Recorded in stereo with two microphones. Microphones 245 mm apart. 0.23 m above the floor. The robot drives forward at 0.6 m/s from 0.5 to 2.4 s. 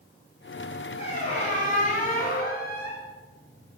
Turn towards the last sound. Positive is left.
turn(degrees=40)  # may be behind; listen again after turning